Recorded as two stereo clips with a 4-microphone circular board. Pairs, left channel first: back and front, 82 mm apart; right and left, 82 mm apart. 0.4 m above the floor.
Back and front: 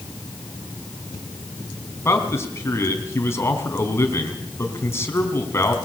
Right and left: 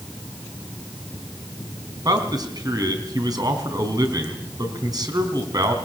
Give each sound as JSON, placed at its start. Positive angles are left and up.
{"t": 2.0, "sound": "a man speaking", "azimuth_deg": 125, "distance_m": 3.5}